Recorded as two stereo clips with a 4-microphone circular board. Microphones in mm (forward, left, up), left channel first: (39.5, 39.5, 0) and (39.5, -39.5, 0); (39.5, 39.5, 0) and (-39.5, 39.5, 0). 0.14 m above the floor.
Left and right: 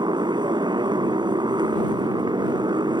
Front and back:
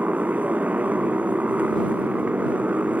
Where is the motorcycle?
110° right.